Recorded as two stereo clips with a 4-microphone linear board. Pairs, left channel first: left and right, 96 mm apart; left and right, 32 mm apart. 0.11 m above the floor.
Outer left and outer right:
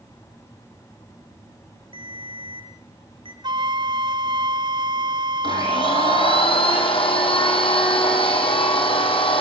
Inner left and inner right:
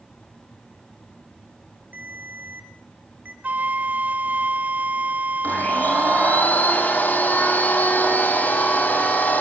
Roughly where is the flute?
Right.